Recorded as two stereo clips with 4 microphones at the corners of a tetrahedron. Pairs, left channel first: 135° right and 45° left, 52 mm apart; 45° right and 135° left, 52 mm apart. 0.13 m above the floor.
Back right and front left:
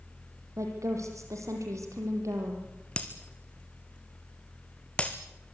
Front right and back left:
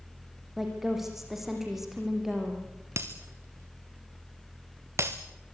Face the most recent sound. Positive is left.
turn(degrees=160)